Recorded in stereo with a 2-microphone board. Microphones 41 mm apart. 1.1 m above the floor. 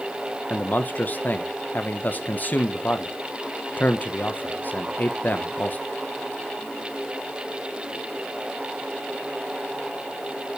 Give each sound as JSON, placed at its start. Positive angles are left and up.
{"t": 0.5, "sound": "a man speaking", "side_deg": 45, "distance_m": 0.9}